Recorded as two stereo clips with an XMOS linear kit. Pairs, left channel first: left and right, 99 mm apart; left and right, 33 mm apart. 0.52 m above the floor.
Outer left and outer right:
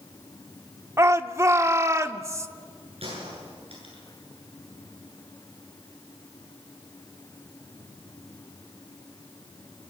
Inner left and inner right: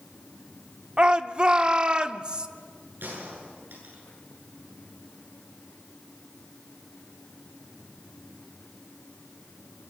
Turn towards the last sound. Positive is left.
turn(degrees=-75)  # may be behind; listen again after turning